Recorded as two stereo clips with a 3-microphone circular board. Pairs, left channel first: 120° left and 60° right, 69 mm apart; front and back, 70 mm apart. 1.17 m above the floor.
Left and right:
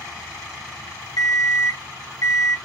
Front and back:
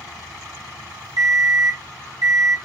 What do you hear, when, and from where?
1.2 s an alarm clock: 150° left, 1.6 m